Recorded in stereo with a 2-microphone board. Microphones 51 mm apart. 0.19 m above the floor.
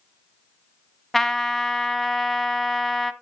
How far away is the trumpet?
About 0.7 m.